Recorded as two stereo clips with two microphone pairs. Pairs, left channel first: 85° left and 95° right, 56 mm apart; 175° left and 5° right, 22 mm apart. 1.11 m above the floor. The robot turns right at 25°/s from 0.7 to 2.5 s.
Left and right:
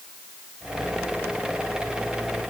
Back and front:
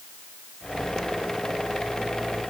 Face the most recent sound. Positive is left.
No sound to turn to.